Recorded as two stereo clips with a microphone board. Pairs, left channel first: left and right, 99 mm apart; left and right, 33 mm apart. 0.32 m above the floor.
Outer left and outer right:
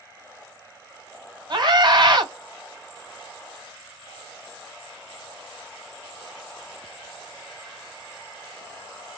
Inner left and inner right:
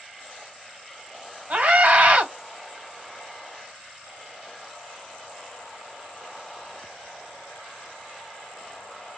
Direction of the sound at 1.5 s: 50° right (ahead or behind).